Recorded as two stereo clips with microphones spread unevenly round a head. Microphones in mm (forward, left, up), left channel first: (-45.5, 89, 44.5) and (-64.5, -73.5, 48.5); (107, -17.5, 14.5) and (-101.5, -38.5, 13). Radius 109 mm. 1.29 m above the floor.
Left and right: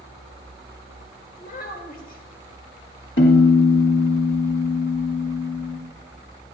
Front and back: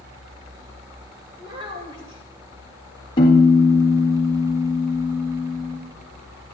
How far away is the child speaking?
About 2.5 m.